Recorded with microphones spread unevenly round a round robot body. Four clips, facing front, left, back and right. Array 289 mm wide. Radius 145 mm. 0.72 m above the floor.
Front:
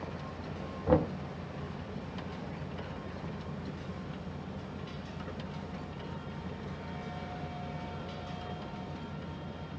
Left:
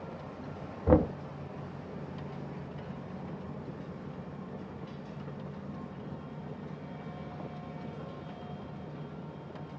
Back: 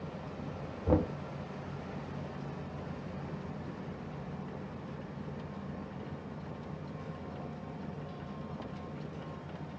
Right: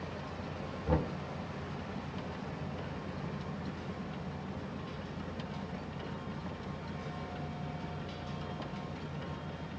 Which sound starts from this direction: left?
Knocking, at 0.9 s.